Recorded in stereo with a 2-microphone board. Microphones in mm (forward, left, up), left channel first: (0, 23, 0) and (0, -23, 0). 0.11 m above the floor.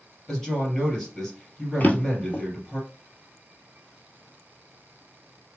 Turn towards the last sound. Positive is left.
turn(degrees=35)  # may be behind; listen again after turning